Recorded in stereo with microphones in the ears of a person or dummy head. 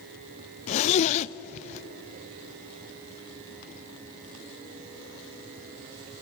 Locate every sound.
0.7 s a zipper: 40° left (ahead or behind), 0.5 m